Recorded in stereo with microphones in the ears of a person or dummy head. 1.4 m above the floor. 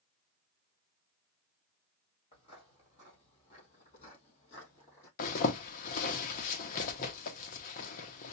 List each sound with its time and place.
2.3 s footsteps: 35° left (ahead or behind), 2 m; by 5.1 s 45° left (ahead or behind), 3.5 m
5.2 s a zipper: 45° left (ahead or behind), 0.7 m